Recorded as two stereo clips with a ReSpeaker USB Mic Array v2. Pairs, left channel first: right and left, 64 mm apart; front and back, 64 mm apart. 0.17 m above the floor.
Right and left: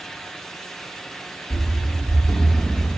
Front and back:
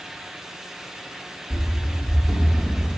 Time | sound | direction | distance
1.5 | running footsteps | 80° right | 0.9 m